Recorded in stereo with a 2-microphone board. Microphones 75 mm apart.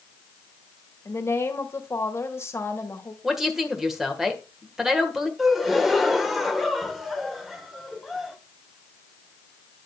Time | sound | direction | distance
1.1 | a woman speaking | 35° left (ahead or behind) | 1.7 m
3.2 | a woman speaking | 5° right (ahead or behind) | 1.5 m
5.4 | a gasp | centre (ahead or behind) | 1.0 m